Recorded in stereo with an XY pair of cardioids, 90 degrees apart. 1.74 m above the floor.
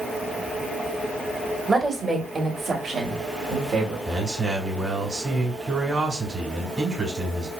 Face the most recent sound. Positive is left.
turn(degrees=-30)